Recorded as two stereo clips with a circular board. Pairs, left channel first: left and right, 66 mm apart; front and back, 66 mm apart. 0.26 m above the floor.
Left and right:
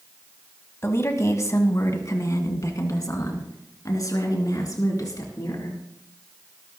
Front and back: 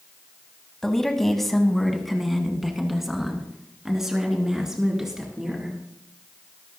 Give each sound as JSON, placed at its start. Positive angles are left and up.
{"t": 0.8, "sound": "a woman speaking", "azimuth_deg": 80, "distance_m": 1.7}